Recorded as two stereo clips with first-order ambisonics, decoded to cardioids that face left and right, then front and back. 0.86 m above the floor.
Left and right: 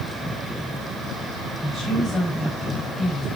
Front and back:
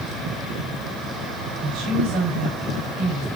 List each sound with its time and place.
1.6 s a woman speaking: 175° right, 5 m